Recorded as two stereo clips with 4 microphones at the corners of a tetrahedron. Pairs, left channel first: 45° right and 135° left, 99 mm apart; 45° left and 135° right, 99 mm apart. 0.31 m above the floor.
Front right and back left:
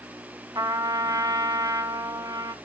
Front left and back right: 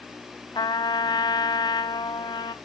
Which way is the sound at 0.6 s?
85° left.